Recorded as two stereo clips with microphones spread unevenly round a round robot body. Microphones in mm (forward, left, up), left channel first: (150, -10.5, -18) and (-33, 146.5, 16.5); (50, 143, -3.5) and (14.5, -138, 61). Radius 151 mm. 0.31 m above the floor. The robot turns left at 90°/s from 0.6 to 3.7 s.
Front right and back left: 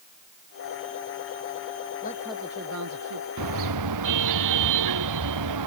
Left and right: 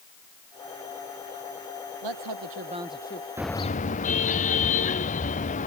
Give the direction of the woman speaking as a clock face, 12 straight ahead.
3 o'clock.